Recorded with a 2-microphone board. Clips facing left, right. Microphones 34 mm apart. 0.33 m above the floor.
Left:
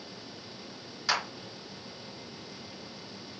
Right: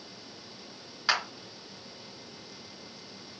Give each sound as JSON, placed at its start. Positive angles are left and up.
{"t": 1.1, "sound": "a clap", "side_deg": -30, "distance_m": 3.5}